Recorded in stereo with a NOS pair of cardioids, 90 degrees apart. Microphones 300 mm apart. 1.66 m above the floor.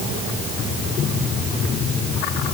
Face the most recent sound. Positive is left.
No sound to turn to.